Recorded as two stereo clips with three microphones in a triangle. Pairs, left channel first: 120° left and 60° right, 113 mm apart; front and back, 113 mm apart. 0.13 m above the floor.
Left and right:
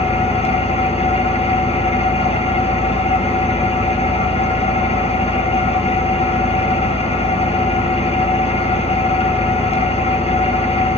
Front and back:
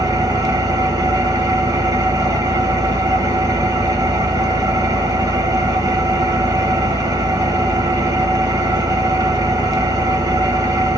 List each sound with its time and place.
0.0 s an engine running: 125° left, 0.7 m